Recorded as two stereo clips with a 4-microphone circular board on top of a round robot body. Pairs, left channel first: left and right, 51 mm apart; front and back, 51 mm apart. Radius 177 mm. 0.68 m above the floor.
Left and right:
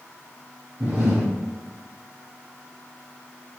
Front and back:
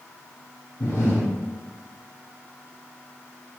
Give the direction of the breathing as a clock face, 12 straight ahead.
1 o'clock.